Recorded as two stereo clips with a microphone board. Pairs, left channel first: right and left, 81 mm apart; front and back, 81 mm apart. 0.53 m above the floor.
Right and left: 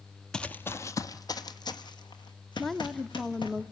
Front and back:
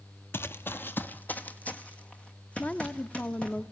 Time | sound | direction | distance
0.3 | running footsteps | 15° right | 0.5 m
2.6 | a woman speaking | 10° right | 0.6 m